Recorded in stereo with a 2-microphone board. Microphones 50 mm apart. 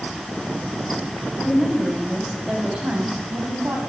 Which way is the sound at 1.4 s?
Centre (ahead or behind).